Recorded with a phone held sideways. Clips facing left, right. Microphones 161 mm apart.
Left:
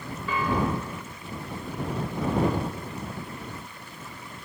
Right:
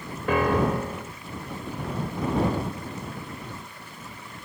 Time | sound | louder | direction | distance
0.3 | a piano | right 4 dB | 60° right (ahead or behind) | ?